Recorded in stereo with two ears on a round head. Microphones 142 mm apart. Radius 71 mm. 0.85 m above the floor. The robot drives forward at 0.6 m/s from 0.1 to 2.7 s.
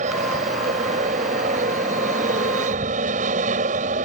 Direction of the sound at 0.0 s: 50° right (ahead or behind).